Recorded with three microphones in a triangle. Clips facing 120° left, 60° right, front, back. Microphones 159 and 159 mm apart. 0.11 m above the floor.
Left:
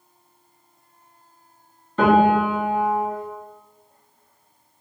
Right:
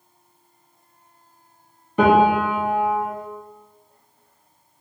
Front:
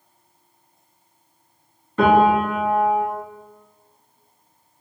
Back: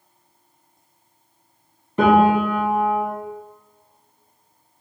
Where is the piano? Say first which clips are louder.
Even, even; 125° right, 0.9 m.